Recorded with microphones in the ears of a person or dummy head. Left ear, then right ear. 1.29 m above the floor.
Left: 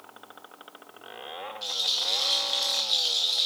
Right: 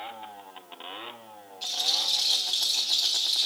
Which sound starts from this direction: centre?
A rattle, at 1.6 s.